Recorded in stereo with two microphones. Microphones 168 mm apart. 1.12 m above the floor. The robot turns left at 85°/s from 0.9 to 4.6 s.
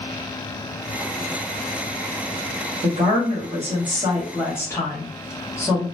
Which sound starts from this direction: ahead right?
A woman speaking, at 2.8 s.